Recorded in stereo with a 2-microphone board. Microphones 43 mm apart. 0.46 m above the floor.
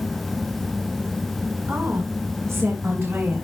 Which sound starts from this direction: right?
A woman speaking, at 1.7 s.